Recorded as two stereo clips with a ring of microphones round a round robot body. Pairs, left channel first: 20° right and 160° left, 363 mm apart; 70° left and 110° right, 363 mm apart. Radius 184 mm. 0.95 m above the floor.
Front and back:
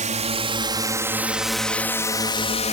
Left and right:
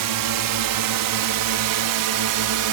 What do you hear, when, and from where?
0.0 s a drone: 135° right; by 2.7 s 90° right